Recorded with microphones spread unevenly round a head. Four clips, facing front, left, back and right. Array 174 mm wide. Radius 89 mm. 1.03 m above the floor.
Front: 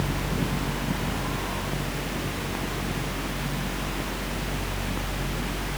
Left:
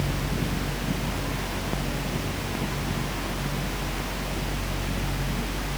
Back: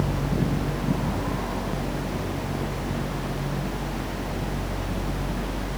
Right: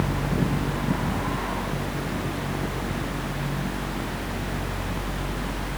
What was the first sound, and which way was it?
Only background noise.